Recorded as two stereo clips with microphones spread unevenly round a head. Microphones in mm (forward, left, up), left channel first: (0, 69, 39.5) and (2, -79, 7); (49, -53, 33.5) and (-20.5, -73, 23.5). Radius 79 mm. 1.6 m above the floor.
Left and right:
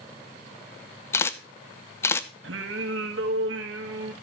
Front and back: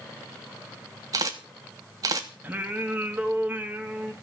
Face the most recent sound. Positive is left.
turn(degrees=-95)